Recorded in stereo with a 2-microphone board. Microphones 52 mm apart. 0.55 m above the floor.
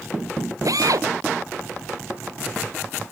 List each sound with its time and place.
0.7 s a drill: 80° right